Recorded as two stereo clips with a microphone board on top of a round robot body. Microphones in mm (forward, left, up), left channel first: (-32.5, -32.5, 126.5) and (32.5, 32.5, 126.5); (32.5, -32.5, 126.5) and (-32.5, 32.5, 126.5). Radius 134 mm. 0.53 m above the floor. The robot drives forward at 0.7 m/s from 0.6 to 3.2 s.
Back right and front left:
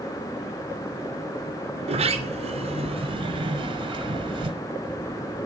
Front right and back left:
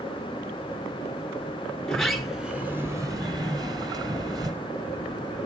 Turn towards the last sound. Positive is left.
turn(degrees=85)